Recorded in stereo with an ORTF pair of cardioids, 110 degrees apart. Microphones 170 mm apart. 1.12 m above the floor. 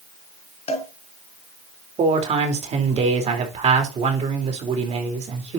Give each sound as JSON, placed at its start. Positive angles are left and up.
{"t": 0.7, "sound": "a cowbell", "azimuth_deg": 40, "distance_m": 3.0}
{"t": 2.0, "sound": "a man speaking", "azimuth_deg": -45, "distance_m": 3.5}